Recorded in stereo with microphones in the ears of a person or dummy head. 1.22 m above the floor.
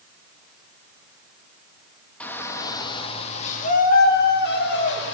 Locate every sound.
2.2 s a shout: 10° left (ahead or behind), 1.8 m; by 5.1 s 65° left (ahead or behind), 3 m